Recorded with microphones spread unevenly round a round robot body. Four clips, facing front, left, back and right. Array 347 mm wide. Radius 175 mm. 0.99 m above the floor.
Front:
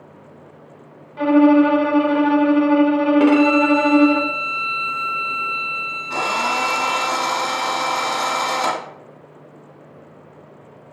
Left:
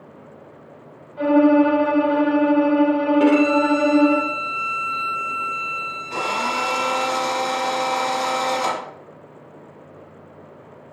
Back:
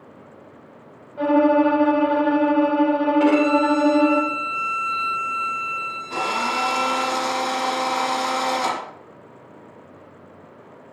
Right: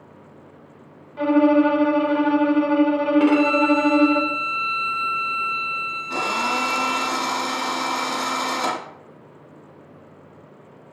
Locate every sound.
1.2 s a violin: 35° right, 2.0 m
3.2 s a violin: 30° left, 1.3 m
6.1 s a drill: 85° right, 2.5 m